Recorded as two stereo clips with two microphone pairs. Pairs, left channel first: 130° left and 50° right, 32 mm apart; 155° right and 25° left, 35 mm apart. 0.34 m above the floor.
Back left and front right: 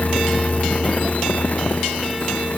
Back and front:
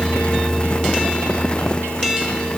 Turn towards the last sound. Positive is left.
No sound to turn to.